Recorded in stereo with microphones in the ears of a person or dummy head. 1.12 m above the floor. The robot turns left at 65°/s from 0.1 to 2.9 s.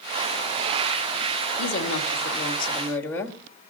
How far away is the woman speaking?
About 1.9 m.